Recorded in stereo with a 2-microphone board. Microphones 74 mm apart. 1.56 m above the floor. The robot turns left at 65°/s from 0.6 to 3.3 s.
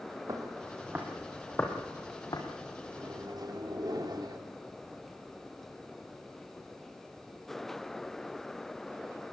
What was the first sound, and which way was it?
Footsteps, 50° right (ahead or behind).